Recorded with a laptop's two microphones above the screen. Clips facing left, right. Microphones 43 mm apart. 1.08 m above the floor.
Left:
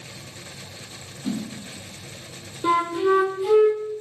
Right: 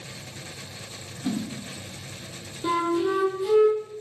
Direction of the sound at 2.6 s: 25° left (ahead or behind).